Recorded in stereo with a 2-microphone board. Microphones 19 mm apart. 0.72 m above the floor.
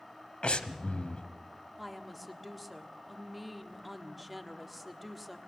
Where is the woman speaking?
Centre (ahead or behind), 1.5 m.